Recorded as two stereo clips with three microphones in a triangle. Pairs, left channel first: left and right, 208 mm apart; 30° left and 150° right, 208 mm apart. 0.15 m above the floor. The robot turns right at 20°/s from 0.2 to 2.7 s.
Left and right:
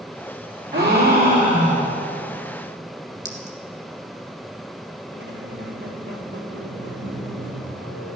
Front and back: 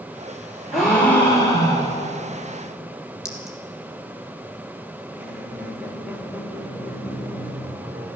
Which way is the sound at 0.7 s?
60° right.